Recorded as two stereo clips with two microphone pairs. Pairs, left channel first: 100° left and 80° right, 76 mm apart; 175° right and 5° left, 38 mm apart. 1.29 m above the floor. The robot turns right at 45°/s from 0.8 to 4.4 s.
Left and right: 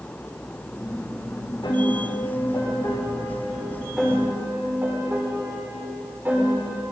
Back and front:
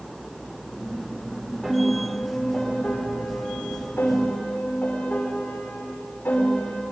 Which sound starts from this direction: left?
A piano, at 1.6 s.